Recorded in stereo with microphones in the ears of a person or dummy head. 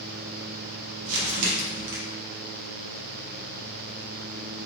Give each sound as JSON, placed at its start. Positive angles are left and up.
{"t": 1.1, "sound": "crumpling", "side_deg": -60, "distance_m": 1.0}